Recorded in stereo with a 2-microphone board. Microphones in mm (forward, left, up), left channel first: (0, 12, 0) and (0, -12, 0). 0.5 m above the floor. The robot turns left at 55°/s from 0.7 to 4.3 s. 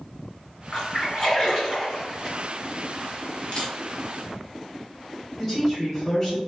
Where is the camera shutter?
45° left (ahead or behind), 1.4 m; by 3.7 s 55° left (ahead or behind), 1.4 m.